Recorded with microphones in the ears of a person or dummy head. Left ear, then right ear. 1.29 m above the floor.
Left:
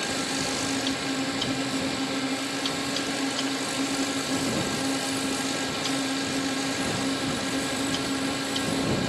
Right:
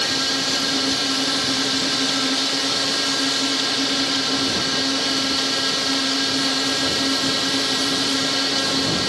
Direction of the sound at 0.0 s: 35° right (ahead or behind).